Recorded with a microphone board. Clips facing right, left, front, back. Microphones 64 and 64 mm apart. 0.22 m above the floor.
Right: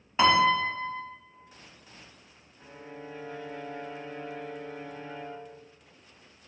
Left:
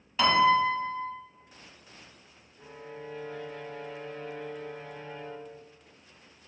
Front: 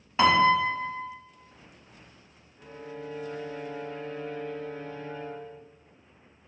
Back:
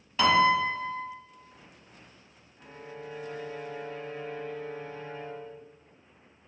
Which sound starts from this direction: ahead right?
A piano, at 0.2 s.